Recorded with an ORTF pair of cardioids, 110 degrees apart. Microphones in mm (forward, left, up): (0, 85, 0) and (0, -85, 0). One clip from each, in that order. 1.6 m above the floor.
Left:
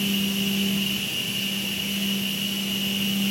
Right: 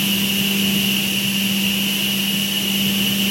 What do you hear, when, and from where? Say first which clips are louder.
0.0 s a machine running: right 6 dB; 60° right, 1.2 m